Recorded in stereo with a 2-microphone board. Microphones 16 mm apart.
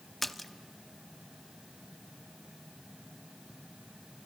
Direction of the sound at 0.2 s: 10° left (ahead or behind).